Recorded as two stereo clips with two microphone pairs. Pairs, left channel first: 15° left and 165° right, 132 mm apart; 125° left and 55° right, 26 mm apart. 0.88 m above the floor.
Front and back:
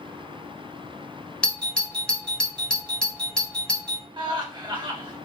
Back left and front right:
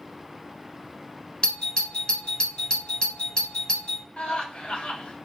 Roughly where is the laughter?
Behind left.